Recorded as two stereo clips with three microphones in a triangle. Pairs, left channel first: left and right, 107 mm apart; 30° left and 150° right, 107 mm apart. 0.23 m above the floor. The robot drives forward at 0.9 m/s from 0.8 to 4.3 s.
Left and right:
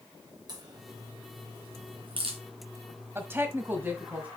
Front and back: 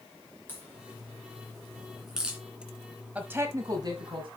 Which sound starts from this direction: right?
A woman speaking, at 3.1 s.